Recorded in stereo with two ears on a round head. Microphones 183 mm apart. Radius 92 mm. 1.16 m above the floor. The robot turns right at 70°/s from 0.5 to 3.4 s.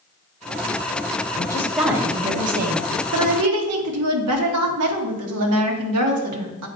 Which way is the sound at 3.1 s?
75° right (ahead or behind).